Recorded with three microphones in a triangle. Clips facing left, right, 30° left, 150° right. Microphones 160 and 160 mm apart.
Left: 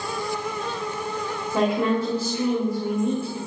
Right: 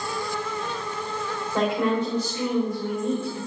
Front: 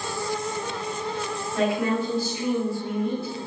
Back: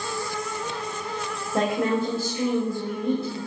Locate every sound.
1.5 s a woman speaking: 170° left, 2 m